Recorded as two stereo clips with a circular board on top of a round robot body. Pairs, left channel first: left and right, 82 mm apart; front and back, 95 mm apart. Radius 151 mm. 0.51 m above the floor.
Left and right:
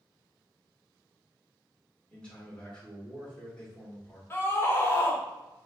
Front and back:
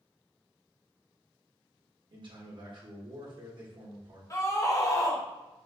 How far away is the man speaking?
About 1.7 m.